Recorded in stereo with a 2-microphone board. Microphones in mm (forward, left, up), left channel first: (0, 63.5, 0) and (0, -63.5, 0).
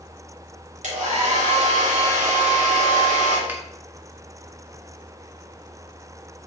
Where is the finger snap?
15° right (ahead or behind), 1.7 m.